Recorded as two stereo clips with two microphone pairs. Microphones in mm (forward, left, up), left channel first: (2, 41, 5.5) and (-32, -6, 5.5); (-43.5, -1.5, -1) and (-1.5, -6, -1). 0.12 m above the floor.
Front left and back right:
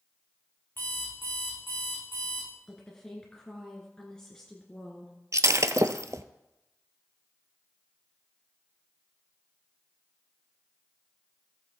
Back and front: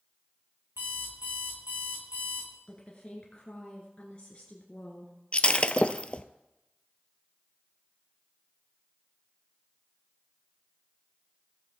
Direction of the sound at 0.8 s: Straight ahead.